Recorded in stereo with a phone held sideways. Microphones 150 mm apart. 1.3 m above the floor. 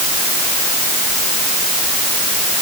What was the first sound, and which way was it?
Only background noise.